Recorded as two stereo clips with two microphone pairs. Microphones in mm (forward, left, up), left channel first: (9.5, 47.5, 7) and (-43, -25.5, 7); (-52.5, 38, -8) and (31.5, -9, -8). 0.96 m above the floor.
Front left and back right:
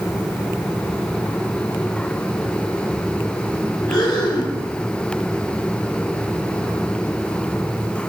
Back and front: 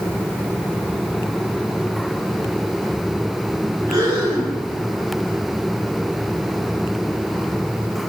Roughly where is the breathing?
Ahead.